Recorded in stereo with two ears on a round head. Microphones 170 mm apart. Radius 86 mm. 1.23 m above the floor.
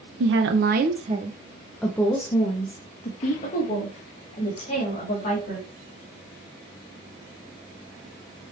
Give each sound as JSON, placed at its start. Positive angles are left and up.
{"t": 0.2, "sound": "a woman speaking", "side_deg": -70, "distance_m": 0.8}